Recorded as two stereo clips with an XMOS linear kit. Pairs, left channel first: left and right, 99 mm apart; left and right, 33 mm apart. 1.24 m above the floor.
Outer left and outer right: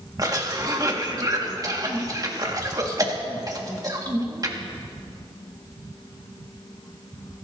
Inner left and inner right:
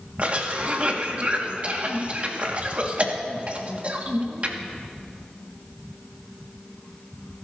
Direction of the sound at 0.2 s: 35° right (ahead or behind).